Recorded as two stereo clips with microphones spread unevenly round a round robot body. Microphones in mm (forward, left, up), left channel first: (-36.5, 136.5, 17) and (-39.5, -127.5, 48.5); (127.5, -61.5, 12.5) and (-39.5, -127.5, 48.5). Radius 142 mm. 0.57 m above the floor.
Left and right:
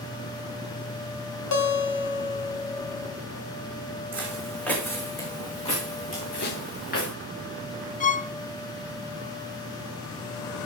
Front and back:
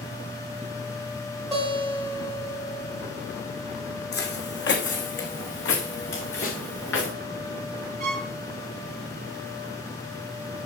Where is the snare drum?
45° left, 1.5 m.